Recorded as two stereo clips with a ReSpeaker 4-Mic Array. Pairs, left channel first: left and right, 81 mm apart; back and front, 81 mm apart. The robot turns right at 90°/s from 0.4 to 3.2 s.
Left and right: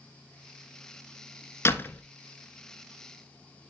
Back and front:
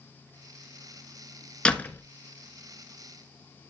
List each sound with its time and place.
1.6 s a door slam: 110° left, 1.0 m; by 2.0 s 145° left, 1.0 m